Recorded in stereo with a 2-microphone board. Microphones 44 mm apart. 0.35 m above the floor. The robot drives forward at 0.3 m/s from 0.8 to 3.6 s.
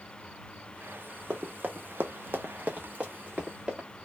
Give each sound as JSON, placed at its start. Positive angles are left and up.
{"t": 1.3, "sound": "running footsteps", "side_deg": -35, "distance_m": 0.9}